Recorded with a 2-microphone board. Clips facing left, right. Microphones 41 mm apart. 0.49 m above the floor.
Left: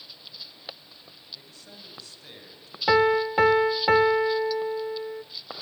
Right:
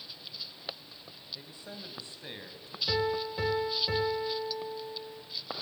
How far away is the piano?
About 0.8 m.